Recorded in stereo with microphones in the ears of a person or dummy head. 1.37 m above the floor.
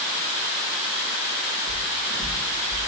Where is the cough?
No cough in this recording.